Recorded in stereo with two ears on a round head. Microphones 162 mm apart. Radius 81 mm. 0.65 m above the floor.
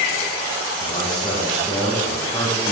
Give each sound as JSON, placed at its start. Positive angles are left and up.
{"t": 0.8, "sound": "a man speaking", "side_deg": 30, "distance_m": 4.5}